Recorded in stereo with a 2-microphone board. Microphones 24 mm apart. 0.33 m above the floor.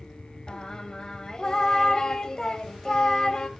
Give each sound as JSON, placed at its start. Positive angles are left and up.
{"t": 0.5, "sound": "singing", "side_deg": 30, "distance_m": 0.7}